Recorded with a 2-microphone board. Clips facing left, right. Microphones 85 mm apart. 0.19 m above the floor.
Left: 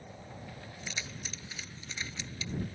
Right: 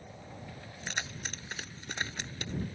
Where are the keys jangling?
55° right (ahead or behind).